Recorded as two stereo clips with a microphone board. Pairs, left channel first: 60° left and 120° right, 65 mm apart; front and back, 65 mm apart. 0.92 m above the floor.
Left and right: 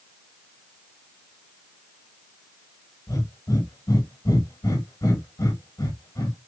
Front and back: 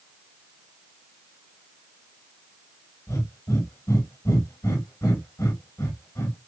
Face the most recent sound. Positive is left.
turn(degrees=40)